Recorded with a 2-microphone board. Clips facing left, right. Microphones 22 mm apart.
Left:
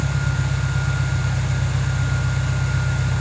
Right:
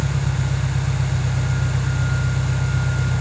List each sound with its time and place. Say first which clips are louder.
0.0 s an engine running: even; 70° right (ahead or behind), 1.6 m